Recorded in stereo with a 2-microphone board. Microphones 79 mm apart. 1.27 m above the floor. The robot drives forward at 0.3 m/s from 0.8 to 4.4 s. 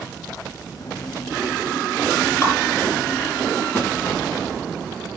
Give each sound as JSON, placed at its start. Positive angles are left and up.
{"t": 2.4, "sound": "dripping", "side_deg": 35, "distance_m": 4.0}
{"t": 3.8, "sound": "a snare drum", "side_deg": 25, "distance_m": 8.0}